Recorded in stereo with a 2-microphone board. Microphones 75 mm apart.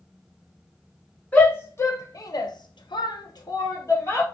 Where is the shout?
25° left (ahead or behind), 0.9 m; by 4.2 s 35° left (ahead or behind), 1.0 m.